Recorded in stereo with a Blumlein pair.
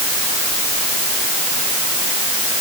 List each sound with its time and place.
Only background noise.